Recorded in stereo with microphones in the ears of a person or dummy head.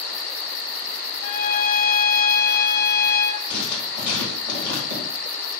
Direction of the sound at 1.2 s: 50° left (ahead or behind).